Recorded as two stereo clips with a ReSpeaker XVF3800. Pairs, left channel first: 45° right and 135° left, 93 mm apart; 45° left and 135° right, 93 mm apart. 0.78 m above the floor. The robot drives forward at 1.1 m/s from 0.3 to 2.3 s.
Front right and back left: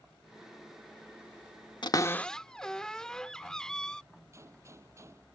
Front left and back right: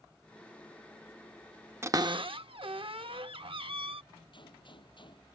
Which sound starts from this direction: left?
A gunshot, at 4.3 s.